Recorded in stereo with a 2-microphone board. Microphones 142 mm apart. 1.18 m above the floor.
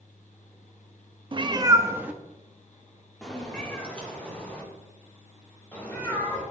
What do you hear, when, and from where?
1.3 s a cat meowing: 35° right (ahead or behind), 0.5 m; by 6.4 s 15° left (ahead or behind), 3.5 m